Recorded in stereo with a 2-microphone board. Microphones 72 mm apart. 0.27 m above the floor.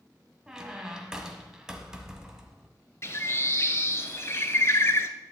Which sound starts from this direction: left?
A bird, at 3.0 s.